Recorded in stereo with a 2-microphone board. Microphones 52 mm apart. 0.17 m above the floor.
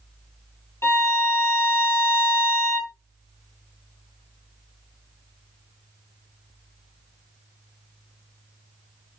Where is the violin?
50° left (ahead or behind), 0.7 m.